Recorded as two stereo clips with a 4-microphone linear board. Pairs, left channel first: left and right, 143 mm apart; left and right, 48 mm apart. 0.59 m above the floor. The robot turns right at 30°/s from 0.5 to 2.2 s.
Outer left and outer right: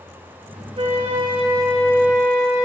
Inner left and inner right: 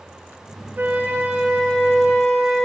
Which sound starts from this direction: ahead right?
A flute, at 0.8 s.